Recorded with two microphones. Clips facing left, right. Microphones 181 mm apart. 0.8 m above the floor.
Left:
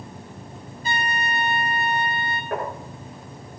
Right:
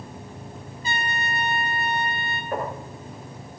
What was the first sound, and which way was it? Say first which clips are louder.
A trumpet: left 3 dB; 55° left (ahead or behind).